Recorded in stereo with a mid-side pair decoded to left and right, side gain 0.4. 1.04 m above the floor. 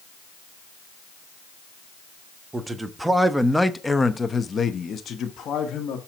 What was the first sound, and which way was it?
A man speaking, 25° right.